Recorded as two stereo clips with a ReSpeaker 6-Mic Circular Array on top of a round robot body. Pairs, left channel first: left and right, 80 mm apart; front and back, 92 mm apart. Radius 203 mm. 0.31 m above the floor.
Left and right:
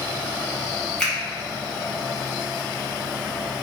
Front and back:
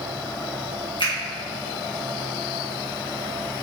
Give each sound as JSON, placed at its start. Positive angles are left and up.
{"t": 1.0, "sound": "a finger snap", "azimuth_deg": 10, "distance_m": 1.8}